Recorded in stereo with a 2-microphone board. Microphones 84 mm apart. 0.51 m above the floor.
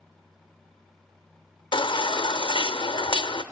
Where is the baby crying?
75° left (ahead or behind), 0.6 m.